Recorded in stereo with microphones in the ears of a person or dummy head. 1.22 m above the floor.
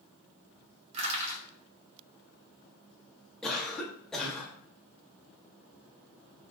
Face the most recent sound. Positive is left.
turn(degrees=5)  # may be behind; listen again after turning